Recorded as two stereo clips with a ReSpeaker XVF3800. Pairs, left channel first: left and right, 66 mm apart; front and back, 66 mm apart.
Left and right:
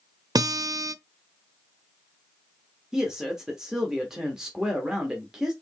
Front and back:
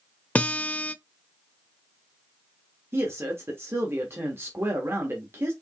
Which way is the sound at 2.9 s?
165° right.